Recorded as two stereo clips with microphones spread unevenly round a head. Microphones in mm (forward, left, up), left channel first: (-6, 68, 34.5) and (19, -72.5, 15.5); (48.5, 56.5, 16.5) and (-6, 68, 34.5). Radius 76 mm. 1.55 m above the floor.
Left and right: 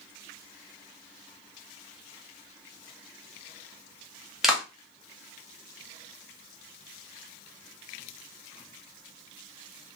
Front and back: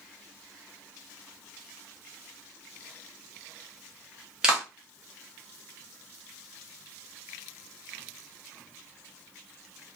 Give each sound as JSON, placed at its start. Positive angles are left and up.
{"t": 4.4, "sound": "a clap", "azimuth_deg": 180, "distance_m": 0.7}